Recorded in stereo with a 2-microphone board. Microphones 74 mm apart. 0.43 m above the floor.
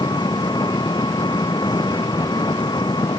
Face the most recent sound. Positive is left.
turn(degrees=70)  # may be behind; listen again after turning